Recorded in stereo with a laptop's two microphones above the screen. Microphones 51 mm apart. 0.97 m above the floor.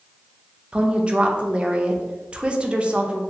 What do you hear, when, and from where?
0.7 s a woman speaking: 25° right (ahead or behind), 0.5 m